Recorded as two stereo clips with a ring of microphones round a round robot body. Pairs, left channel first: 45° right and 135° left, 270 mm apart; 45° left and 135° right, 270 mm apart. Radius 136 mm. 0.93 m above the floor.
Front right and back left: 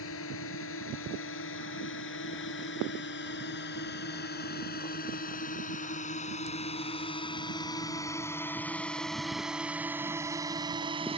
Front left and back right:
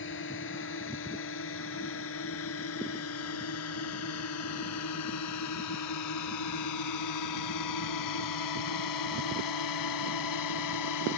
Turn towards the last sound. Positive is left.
turn(degrees=65)